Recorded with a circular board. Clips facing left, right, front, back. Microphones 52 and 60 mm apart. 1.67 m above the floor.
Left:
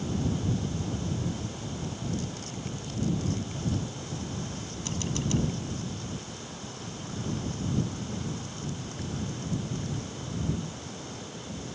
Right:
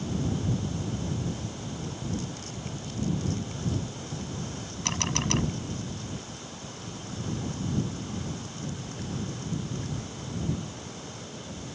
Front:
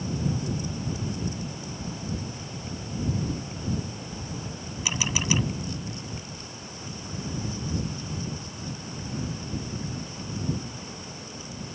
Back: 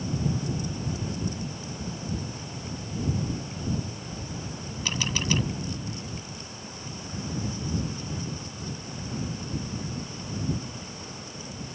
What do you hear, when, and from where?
4.8 s a camera shutter: 80° right